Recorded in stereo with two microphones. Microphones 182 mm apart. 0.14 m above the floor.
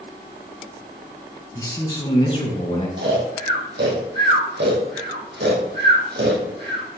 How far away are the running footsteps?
I don't hear running footsteps.